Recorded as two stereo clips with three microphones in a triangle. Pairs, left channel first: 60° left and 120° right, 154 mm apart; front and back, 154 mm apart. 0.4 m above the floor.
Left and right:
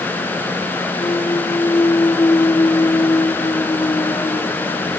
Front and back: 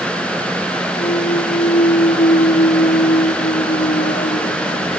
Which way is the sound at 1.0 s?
5° right.